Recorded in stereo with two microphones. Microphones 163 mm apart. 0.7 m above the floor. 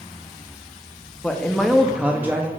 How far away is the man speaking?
About 0.8 m.